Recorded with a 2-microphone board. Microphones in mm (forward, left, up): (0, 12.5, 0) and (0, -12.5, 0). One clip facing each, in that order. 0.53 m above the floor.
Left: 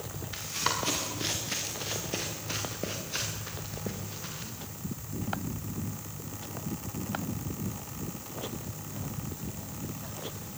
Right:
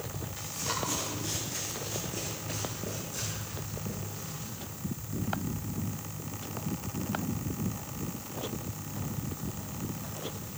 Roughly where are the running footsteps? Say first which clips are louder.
Left 5 dB; left.